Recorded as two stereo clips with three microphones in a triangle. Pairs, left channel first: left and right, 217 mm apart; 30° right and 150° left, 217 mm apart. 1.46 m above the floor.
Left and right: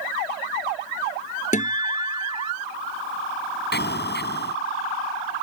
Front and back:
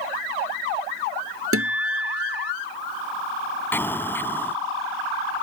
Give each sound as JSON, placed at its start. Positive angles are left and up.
{"t": 1.5, "sound": "a guitar", "azimuth_deg": 145}
{"t": 3.7, "sound": "an explosion", "azimuth_deg": 50}